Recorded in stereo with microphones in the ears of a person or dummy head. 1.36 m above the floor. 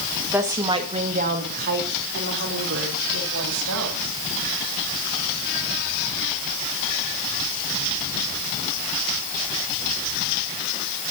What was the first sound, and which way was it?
A woman speaking, 10° right (ahead or behind).